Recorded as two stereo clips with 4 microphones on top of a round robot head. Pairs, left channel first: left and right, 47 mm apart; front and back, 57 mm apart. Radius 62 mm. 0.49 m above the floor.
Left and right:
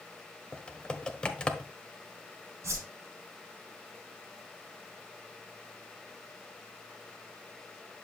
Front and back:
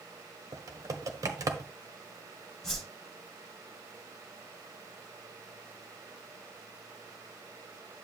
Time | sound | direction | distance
0.5 | typing on a keyboard | 160° left | 1.3 m
2.6 | a whoosh | 90° right | 5 m